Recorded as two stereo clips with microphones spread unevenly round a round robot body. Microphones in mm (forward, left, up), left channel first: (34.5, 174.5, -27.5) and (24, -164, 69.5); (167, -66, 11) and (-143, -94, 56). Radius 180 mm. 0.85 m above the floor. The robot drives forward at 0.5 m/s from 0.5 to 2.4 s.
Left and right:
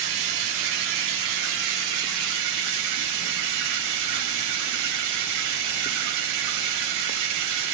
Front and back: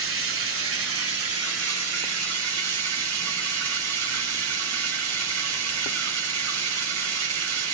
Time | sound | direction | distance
0.0 | running water | 125° right | 3.5 m